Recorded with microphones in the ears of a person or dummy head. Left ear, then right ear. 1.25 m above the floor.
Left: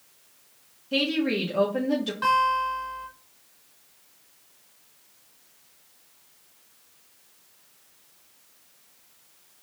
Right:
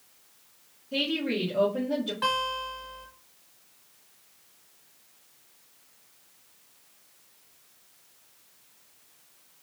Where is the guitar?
10° right (ahead or behind), 1.3 m.